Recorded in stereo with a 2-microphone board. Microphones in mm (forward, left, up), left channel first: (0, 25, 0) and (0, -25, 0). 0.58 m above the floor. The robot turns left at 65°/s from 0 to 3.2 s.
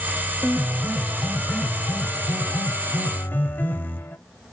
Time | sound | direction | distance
0.4 | a piano | 125° right | 0.6 m